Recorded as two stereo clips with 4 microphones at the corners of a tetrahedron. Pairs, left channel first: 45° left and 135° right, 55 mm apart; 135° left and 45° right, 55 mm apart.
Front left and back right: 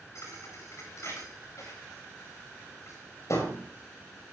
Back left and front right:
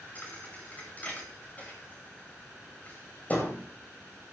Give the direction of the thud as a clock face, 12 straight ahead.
9 o'clock.